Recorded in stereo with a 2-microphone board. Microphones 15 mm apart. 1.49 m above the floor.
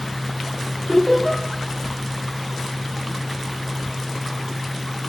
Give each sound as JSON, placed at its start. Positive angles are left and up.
{"t": 0.9, "sound": "laughter", "side_deg": -30, "distance_m": 5.5}